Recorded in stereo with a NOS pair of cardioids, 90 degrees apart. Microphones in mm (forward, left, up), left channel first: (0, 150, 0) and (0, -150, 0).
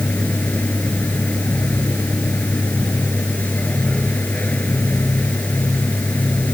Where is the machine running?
5° left.